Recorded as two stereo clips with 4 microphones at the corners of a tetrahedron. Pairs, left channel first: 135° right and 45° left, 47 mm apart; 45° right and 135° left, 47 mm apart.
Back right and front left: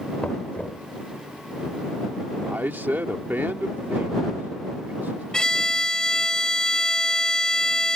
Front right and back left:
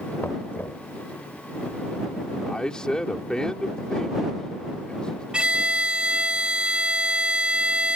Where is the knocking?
80° right.